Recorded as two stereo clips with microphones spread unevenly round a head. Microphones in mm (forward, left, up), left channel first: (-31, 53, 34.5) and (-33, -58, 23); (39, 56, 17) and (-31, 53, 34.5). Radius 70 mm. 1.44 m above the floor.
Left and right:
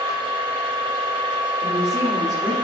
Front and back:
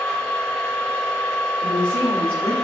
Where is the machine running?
95° right, 1.3 m.